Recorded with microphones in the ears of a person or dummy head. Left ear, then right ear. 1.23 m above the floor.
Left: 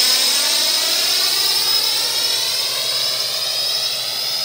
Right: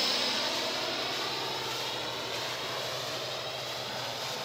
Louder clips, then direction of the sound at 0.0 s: Left 13 dB; 70° left (ahead or behind).